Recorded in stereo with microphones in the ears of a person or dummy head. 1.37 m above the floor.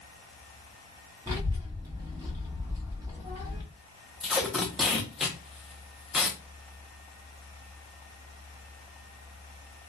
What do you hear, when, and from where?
1.3 s a child speaking: 20° right (ahead or behind), 0.7 m
4.2 s tape being pulled: centre (ahead or behind), 0.5 m